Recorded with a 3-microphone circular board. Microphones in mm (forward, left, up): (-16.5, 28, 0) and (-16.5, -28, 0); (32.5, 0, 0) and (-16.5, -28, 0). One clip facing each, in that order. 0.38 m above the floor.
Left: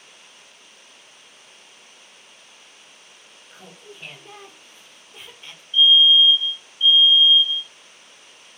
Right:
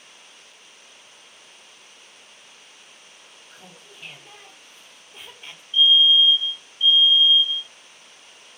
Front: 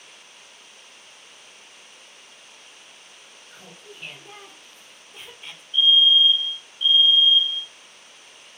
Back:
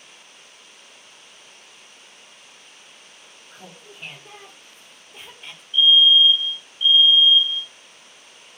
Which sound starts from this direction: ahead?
A fire alarm, at 5.7 s.